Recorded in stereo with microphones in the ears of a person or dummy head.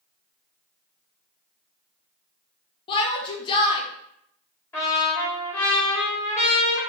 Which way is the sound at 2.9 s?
30° left (ahead or behind).